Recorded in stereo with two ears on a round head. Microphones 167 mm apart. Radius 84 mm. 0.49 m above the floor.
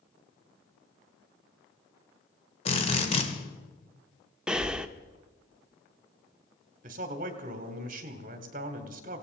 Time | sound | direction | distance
2.6 | a drill | 30° left (ahead or behind) | 2 m
4.5 | breathing | 5° right (ahead or behind) | 0.7 m
6.8 | a man speaking | 45° right (ahead or behind) | 1.9 m